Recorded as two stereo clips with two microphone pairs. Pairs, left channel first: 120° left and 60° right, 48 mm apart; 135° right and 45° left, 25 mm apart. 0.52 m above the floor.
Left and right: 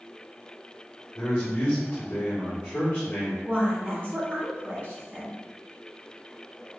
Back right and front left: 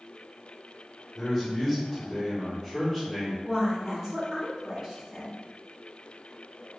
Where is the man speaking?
155° left, 1.1 m.